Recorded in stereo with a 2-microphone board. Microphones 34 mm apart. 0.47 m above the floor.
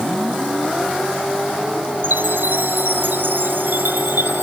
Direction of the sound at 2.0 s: 80° right.